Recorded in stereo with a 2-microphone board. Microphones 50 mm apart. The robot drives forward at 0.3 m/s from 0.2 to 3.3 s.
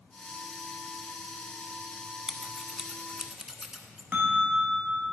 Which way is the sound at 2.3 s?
15° right (ahead or behind).